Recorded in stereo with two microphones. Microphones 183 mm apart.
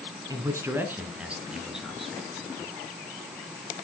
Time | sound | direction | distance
0.3 | a man speaking | 20° right (ahead or behind) | 1.5 m